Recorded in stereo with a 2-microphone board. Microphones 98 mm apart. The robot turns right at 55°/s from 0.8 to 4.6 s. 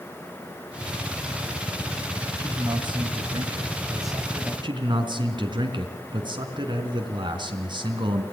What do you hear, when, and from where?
2.4 s a man speaking: 135° right, 2.5 m; by 4.5 s 20° right, 2.5 m
4.6 s a man speaking: 50° right (ahead or behind), 3 m